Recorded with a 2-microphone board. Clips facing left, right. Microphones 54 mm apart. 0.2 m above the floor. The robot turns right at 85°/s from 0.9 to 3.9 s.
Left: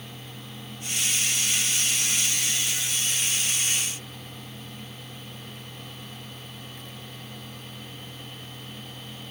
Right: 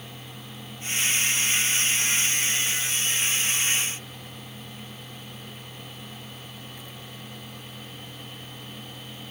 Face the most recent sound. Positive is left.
No sound to turn to.